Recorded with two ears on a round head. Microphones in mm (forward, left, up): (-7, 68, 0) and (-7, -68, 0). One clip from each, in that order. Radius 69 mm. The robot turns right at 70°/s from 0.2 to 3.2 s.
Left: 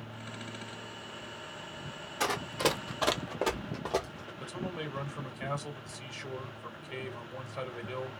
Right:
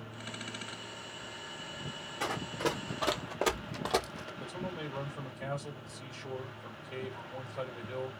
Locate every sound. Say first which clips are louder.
2.2 s running footsteps: left 4 dB; 40° left (ahead or behind), 0.9 m; by 4.3 s 60° right (ahead or behind), 0.9 m
4.4 s a man speaking: left 3 dB; 40° left (ahead or behind), 1.7 m